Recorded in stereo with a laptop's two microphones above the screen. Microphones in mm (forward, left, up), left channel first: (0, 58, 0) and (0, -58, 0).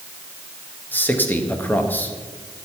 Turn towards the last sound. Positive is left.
turn(degrees=15)  # may be behind; listen again after turning